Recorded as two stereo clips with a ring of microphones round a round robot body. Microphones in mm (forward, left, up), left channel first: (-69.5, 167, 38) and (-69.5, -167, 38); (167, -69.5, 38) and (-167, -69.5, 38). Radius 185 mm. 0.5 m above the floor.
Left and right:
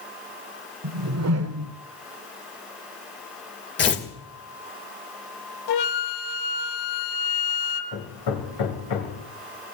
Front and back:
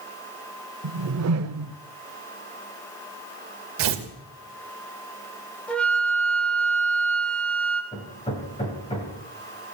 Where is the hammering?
75° left, 3 m.